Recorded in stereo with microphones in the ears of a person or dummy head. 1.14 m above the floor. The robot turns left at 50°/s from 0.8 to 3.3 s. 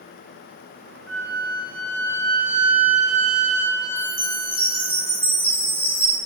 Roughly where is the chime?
Centre.